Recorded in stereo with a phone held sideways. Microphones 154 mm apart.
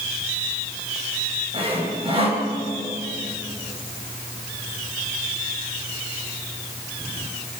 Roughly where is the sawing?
Right.